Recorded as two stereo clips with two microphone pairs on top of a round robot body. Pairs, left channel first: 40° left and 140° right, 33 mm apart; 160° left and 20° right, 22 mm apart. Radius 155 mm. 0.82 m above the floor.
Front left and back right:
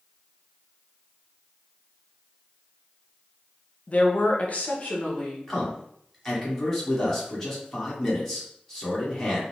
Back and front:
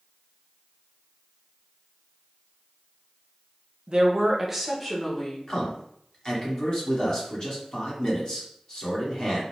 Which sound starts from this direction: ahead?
A woman speaking, at 3.9 s.